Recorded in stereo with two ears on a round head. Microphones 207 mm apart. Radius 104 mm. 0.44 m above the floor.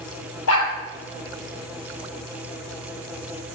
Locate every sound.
0.5 s a dog barking: 75° left (ahead or behind), 5.5 m